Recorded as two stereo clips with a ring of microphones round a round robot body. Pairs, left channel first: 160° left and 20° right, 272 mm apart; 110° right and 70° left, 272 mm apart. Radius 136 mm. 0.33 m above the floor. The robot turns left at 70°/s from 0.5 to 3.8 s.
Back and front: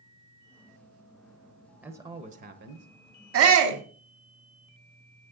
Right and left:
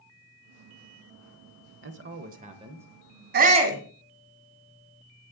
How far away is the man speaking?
About 1.0 m.